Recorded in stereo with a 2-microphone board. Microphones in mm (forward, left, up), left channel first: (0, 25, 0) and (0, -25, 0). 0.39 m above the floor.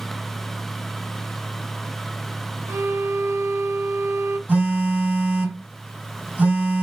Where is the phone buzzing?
35° right (ahead or behind), 2.5 m.